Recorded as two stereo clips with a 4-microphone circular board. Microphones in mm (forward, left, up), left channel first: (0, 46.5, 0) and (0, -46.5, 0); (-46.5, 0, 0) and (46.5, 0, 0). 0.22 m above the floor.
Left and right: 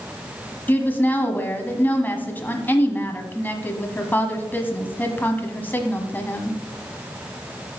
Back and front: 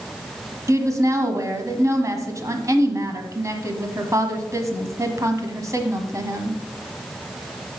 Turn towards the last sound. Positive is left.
turn(degrees=30)